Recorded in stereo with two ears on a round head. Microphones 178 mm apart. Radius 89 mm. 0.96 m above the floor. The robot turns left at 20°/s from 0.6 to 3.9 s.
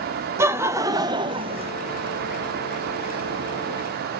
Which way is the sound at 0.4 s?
15° right (ahead or behind).